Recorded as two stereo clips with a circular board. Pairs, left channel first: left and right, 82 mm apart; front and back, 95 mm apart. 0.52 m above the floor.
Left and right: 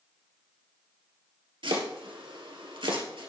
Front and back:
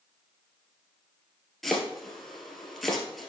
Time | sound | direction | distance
1.6 | chopping | 90° right | 1.9 m